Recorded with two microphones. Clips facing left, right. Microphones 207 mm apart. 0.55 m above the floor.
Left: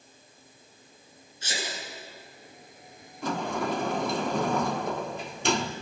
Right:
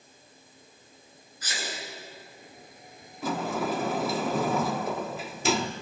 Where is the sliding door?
5° right (ahead or behind), 1.0 m.